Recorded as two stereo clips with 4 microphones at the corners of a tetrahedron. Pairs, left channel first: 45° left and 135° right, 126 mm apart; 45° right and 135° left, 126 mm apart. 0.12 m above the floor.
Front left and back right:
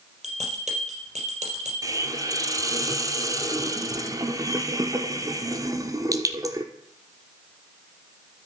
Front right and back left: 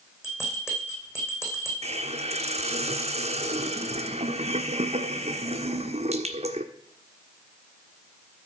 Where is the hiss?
165° left, 1.1 m.